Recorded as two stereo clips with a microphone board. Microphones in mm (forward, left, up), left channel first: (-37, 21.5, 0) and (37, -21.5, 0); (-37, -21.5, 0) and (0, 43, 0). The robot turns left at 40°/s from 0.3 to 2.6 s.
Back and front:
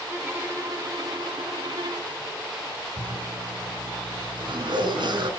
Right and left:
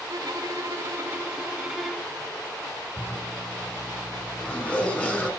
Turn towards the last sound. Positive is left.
turn(degrees=-50)